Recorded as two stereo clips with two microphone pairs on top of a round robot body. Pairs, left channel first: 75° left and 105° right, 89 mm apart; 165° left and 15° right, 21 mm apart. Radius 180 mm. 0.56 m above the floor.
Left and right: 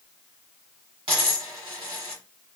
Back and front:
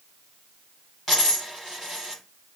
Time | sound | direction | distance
1.1 | a dropped coin | 110° right | 1.0 m